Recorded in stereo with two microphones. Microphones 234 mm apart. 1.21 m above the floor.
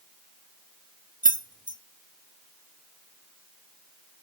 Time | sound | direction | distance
1.2 | keys jangling | 35° right (ahead or behind) | 0.8 m